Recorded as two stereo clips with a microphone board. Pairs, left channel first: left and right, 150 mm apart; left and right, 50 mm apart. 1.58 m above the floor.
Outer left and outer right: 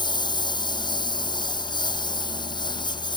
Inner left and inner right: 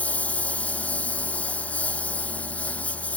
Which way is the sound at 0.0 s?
30° left (ahead or behind).